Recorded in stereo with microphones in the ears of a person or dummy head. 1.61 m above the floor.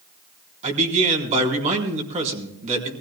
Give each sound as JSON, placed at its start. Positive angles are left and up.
{"t": 0.6, "sound": "a man speaking", "side_deg": -35, "distance_m": 4.0}